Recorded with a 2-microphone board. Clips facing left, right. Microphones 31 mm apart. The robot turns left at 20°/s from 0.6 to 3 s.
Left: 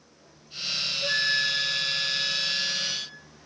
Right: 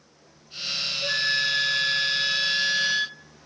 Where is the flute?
5° right, 0.7 m; by 3.2 s 40° right, 0.7 m.